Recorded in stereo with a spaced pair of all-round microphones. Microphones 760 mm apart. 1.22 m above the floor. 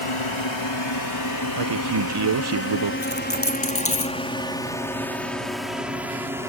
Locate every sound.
0.0 s a drone: 40° left (ahead or behind); by 6.5 s 5° right (ahead or behind)
1.6 s a man speaking: 35° right (ahead or behind)
3.0 s a dropped coin: 15° left (ahead or behind)